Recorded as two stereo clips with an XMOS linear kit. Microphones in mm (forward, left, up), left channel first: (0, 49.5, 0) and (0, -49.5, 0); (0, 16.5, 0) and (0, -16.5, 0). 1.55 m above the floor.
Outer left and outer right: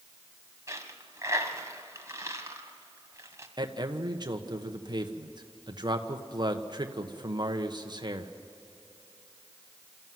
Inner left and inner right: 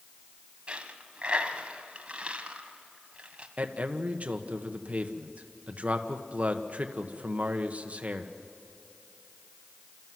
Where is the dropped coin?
30° right (ahead or behind), 1.9 m.